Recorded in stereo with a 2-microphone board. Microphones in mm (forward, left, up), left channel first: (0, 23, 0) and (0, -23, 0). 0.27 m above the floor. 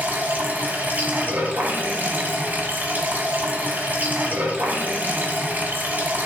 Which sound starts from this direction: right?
Running water, at 0.0 s.